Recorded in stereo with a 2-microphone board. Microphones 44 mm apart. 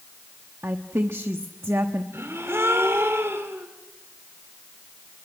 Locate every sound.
0.6 s a woman speaking: 75° right (ahead or behind), 1.0 m
2.1 s a gasp: 75° right (ahead or behind), 3 m